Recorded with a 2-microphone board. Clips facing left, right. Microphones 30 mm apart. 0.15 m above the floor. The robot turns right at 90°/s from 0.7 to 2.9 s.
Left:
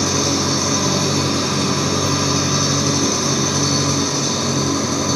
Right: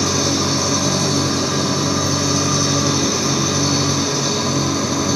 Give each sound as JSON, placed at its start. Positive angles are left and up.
{"t": 0.0, "sound": "an engine running", "azimuth_deg": 5, "distance_m": 3.0}